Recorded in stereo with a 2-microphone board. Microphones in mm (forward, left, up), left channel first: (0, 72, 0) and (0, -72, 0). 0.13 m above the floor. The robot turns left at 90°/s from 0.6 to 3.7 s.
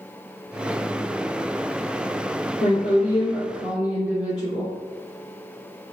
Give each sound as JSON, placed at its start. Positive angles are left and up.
{"t": 2.6, "sound": "a woman speaking", "azimuth_deg": 95, "distance_m": 2.0}